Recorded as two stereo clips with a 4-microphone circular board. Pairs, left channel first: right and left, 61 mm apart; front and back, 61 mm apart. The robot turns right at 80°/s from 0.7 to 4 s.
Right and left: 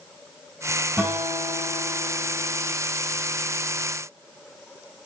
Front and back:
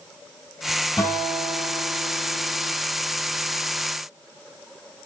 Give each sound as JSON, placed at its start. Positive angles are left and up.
{"t": 1.0, "sound": "a guitar", "azimuth_deg": 20, "distance_m": 3.5}